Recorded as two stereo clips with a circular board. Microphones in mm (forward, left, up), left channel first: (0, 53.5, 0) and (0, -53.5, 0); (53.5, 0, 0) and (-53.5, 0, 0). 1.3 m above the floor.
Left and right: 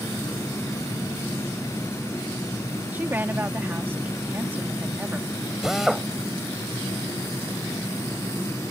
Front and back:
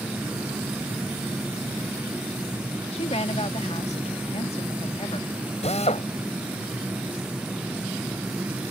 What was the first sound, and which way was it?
A woman speaking, 20° right.